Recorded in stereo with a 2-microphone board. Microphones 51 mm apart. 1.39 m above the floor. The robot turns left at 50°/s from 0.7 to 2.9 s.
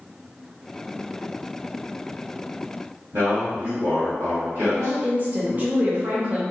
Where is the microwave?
I don't hear a microwave.